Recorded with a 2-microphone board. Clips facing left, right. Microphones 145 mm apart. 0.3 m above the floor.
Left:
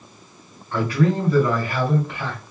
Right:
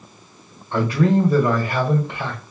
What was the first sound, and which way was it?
A man speaking, 25° right (ahead or behind).